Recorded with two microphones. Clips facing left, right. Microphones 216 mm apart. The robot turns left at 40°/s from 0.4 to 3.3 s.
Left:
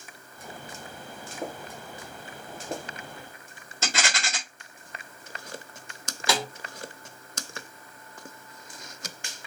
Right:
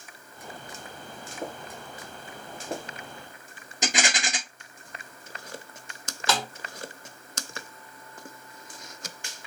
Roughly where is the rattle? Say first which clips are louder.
Right 3 dB; centre.